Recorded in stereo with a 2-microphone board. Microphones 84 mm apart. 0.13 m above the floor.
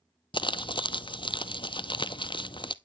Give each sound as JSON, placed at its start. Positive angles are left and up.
{"t": 0.3, "sound": "crumpling", "side_deg": 70, "distance_m": 0.6}